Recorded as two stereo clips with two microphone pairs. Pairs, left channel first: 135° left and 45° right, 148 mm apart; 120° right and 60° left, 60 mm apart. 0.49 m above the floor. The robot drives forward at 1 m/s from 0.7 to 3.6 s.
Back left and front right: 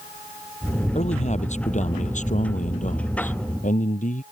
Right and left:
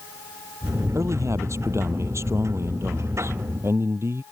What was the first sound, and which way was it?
A man speaking, 95° left.